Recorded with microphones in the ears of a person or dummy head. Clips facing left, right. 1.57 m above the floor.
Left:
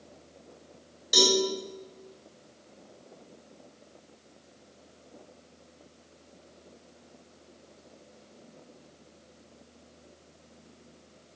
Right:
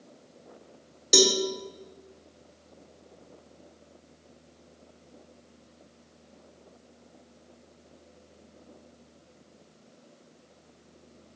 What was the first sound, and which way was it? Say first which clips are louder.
A cowbell: right 2 dB; 55° right (ahead or behind).